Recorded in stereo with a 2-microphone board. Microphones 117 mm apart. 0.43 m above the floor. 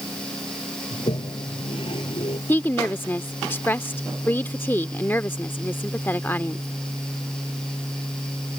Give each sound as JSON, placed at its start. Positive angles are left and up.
{"t": 0.9, "sound": "a toilet flushing", "side_deg": 50}
{"t": 2.5, "sound": "a woman speaking", "side_deg": 15}